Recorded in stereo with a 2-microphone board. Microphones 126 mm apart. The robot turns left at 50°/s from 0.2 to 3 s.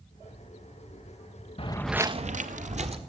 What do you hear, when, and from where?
1.6 s footsteps: 50° left (ahead or behind), 0.8 m; by 3.0 s 50° right (ahead or behind), 1.7 m